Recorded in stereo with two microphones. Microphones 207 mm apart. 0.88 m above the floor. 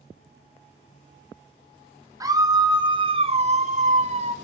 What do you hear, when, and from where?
2.2 s a scream: 15° right (ahead or behind), 1.1 m; by 4.4 s 30° right (ahead or behind), 0.6 m